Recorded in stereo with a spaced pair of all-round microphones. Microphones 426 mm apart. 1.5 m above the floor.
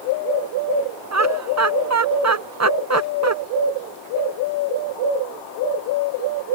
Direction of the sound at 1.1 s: 35° right (ahead or behind).